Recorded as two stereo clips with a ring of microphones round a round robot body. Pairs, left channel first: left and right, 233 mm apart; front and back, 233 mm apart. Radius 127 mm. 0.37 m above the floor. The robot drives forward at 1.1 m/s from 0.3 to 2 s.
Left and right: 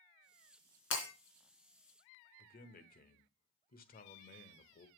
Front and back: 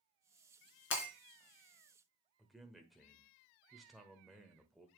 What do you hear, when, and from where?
0.9 s breaking glass: 45° left, 3 m; by 1.1 s 50° left, 3 m
2.4 s a man speaking: 90° left, 1.1 m